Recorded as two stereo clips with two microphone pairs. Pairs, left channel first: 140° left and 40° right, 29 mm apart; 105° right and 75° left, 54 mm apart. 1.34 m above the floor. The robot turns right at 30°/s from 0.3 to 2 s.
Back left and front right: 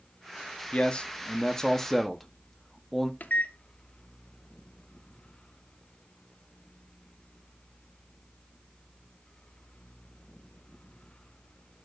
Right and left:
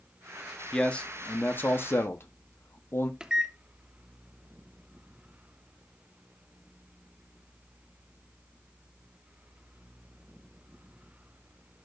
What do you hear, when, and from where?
0.7 s a man speaking: straight behind, 1.0 m; by 3.1 s 140° right, 1.0 m
3.2 s a microwave: 150° left, 0.7 m